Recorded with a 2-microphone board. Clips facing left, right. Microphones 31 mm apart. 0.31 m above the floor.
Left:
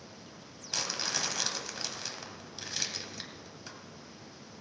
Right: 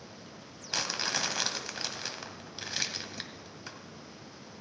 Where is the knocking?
I don't hear knocking.